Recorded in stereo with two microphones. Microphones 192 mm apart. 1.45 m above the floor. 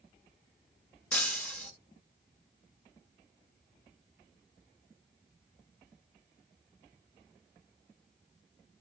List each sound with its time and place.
1.1 s breaking glass: 5° left (ahead or behind), 0.9 m